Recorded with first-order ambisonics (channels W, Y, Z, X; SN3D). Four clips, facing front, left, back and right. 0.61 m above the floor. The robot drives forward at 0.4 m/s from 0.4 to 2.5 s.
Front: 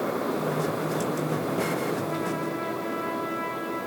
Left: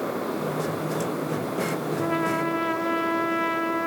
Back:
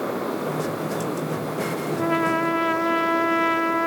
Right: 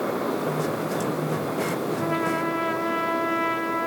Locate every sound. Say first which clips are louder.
1.9 s a trumpet: left 2 dB, back 7 dB; straight behind, 0.6 m